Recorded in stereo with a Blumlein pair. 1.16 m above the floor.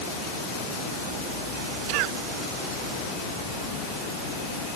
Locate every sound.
1.9 s a cough: 45° right